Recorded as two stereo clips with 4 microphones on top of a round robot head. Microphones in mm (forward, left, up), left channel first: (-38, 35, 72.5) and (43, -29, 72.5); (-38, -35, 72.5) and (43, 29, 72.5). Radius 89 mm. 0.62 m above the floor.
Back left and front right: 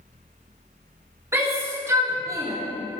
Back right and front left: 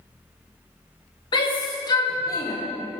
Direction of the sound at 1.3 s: 105° right.